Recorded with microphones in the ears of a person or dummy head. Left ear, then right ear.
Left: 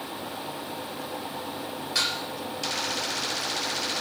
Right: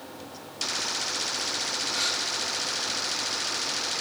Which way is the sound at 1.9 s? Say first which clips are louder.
Left 4 dB; 70° left (ahead or behind).